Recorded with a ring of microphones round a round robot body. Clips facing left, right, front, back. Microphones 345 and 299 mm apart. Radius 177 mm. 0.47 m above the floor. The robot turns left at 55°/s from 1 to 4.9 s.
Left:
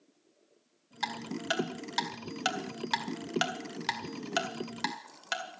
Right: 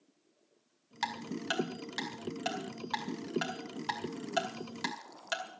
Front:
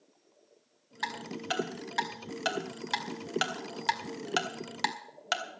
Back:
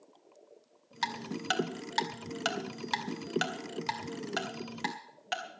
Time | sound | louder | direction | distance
1.0 | ticking | left 2 dB, back 1 dB | 145° right | 2 m